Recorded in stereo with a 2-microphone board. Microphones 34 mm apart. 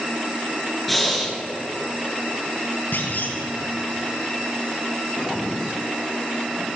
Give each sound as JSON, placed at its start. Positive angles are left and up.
{"t": 0.9, "sound": "breathing", "side_deg": 5, "distance_m": 2.5}
{"t": 2.9, "sound": "a clunk", "side_deg": 75, "distance_m": 2.5}